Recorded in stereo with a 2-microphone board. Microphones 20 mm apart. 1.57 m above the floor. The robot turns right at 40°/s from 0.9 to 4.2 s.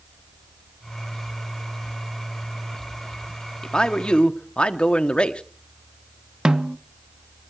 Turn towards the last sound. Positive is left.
turn(degrees=-35)  # may be behind; listen again after turning